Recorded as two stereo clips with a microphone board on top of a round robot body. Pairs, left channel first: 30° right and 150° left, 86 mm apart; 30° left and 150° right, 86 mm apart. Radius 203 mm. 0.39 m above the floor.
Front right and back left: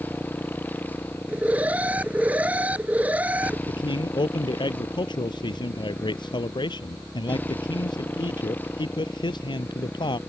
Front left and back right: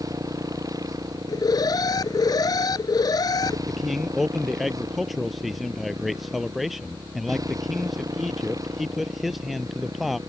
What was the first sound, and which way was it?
A motorcycle, 100° right.